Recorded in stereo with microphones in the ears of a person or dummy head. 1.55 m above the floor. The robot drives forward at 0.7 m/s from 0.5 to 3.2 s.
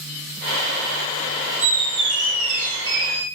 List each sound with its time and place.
1.6 s a squeak: 40° right (ahead or behind), 0.9 m; by 3.3 s 30° right (ahead or behind), 1.1 m